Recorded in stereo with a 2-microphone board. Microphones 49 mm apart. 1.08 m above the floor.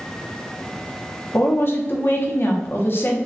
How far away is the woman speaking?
About 0.7 m.